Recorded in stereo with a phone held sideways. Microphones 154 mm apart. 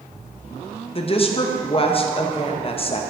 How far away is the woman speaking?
About 0.7 m.